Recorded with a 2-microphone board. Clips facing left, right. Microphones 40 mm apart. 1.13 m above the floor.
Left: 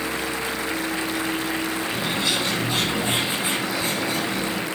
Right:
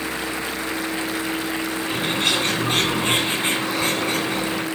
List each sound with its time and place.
1.9 s a bird: 50° right (ahead or behind), 5 m